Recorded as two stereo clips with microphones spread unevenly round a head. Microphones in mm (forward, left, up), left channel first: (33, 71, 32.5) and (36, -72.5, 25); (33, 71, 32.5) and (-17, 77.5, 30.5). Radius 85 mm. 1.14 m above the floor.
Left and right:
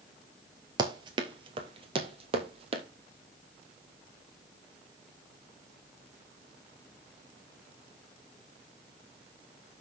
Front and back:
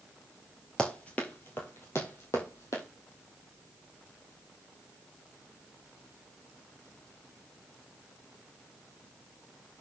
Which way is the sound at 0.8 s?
65° right.